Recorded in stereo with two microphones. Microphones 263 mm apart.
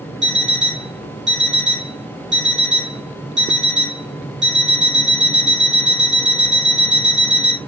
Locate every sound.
0.2 s an alarm clock: 40° right (ahead or behind), 2 m